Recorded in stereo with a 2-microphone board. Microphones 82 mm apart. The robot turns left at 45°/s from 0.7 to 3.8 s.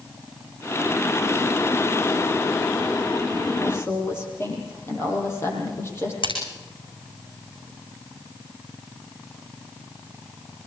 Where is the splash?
85° left, 8.5 m.